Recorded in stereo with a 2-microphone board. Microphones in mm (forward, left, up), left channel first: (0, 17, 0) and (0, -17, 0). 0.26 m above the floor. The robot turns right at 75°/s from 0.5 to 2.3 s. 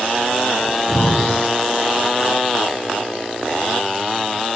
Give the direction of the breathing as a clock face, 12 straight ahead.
10 o'clock.